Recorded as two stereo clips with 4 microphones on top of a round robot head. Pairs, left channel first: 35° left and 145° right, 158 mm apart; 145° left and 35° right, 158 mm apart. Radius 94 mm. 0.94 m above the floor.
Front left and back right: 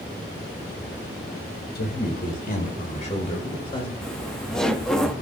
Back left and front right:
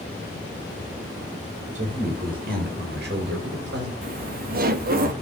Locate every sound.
1.8 s a man speaking: 10° left, 4.5 m; by 3.9 s 25° right, 5.5 m
4.0 s laughter: 50° right, 2 m